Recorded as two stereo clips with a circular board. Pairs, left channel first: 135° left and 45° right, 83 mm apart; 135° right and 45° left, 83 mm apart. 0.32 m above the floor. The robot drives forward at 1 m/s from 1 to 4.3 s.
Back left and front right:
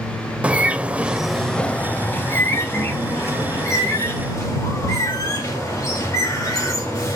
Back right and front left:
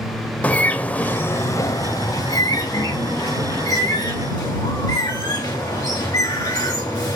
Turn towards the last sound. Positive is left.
turn(degrees=-175)